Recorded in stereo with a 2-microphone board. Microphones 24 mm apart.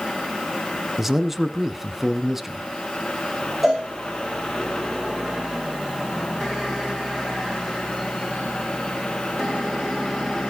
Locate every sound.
1.0 s a man speaking: 10° right (ahead or behind), 1.1 m
3.6 s a cowbell: 10° right (ahead or behind), 5 m